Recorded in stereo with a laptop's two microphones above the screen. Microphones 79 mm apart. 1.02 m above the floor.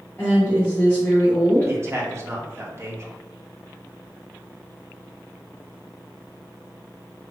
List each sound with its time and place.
0.2 s a woman speaking: 25° left (ahead or behind), 1.9 m
1.7 s a man speaking: 35° right (ahead or behind), 0.8 m